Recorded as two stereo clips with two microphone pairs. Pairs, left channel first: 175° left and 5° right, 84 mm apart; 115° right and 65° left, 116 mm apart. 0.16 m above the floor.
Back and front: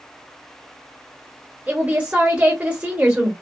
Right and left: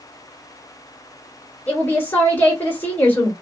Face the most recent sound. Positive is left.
turn(degrees=-55)